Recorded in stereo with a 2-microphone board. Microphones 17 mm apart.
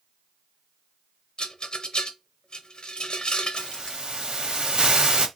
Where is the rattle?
65° left (ahead or behind), 0.8 m.